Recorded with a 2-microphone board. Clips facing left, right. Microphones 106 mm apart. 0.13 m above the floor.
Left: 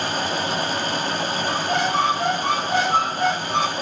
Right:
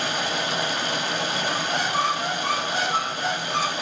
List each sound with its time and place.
0.0 s running water: 40° left (ahead or behind), 1.3 m
1.5 s a squeak: 55° left (ahead or behind), 1.5 m